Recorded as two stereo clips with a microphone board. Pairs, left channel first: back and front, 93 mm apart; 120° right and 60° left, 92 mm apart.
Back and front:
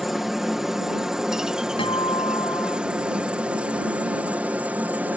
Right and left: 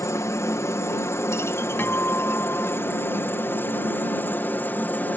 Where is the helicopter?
85° right; by 5.2 s 60° right.